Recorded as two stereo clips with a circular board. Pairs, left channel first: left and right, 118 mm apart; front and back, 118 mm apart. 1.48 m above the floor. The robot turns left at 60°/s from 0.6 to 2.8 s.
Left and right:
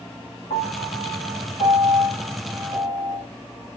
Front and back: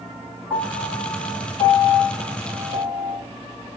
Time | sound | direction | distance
0.5 | a piano | 115° left | 7.5 m